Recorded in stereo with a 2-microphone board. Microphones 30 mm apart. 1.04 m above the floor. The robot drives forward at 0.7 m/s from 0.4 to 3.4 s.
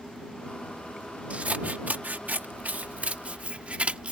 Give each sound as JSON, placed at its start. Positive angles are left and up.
{"t": 1.3, "sound": "scissors", "side_deg": -55}